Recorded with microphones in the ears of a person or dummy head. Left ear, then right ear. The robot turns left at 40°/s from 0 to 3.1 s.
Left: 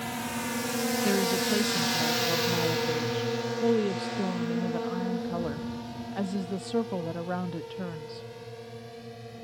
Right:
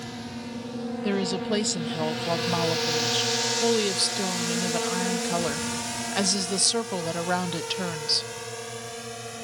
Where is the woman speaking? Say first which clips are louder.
Right 1 dB; 5° left; by 8.3 s 80° right.